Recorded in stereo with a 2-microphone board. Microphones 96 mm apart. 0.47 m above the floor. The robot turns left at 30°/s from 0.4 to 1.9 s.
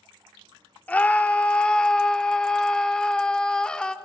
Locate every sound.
0.9 s a scream: 15° left (ahead or behind), 0.7 m; by 4.0 s 10° left (ahead or behind), 0.7 m